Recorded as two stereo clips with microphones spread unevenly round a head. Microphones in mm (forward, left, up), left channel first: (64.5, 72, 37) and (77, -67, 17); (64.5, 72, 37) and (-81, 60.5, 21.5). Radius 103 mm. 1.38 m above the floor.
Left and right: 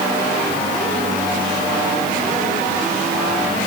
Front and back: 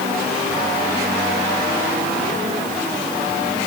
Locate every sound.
Only background noise.